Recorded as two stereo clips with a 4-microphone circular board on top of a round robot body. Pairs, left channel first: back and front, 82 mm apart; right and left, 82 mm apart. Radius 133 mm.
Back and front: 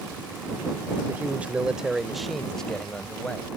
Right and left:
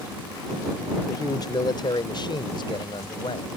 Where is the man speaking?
65° right; by 3.5 s 105° right.